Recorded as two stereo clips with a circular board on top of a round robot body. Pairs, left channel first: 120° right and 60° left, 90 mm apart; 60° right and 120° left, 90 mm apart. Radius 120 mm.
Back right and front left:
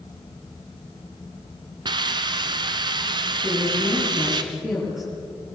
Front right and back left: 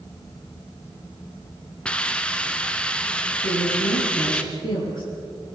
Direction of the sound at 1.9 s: 20° left.